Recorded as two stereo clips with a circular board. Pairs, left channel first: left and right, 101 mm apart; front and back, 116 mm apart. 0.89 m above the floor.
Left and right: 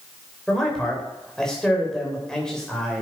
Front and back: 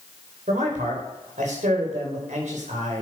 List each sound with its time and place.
0.5 s a man speaking: 175° left, 3 m